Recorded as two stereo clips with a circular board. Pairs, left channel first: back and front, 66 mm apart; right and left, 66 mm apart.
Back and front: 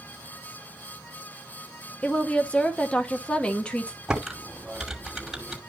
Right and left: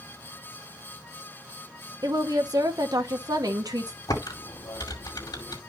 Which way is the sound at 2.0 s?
105° left.